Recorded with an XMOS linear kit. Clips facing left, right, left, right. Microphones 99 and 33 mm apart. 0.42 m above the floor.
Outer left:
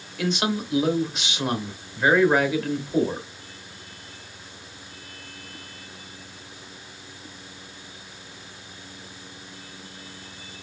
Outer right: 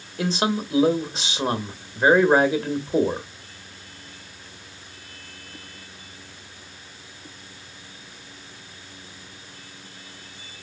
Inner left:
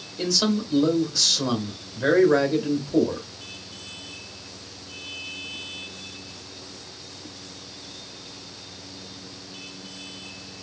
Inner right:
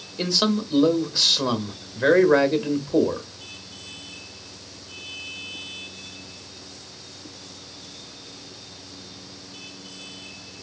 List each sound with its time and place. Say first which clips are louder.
0.2 s a man speaking: outer right 2 dB, inner right 1 dB; 35° right (ahead or behind), 1.1 m